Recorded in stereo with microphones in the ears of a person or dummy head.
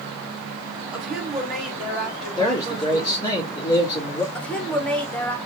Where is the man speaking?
20° left (ahead or behind), 2.5 m.